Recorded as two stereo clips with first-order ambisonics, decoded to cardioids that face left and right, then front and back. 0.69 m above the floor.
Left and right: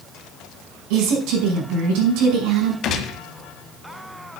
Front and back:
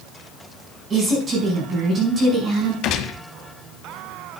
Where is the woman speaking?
115° right, 5 m.